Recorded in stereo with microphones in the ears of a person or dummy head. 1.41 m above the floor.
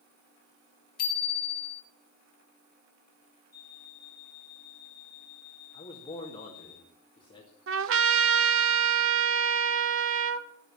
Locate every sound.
1.0 s a bicycle bell: 50° left (ahead or behind), 2.5 m
3.5 s an alarm clock: 55° left (ahead or behind), 4 m
5.7 s a man speaking: 25° left (ahead or behind), 2 m
7.7 s a trumpet: 60° right (ahead or behind), 0.7 m